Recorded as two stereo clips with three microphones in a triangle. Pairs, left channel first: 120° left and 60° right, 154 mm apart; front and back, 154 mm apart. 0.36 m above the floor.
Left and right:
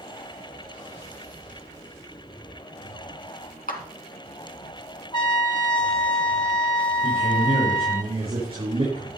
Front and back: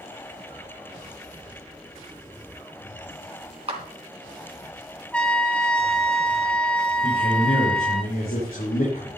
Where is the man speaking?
5° right, 5.5 m.